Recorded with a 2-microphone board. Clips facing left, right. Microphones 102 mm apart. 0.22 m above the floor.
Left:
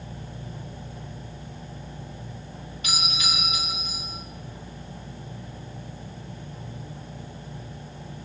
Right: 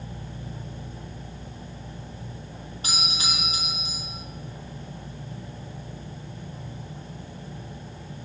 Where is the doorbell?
30° right (ahead or behind), 7 m.